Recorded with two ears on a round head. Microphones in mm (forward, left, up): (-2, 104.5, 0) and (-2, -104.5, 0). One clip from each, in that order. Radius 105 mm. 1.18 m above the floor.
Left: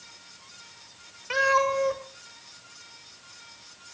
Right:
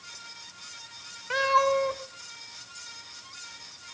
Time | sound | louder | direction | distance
1.3 | a cat meowing | even | 5° left (ahead or behind) | 1.9 m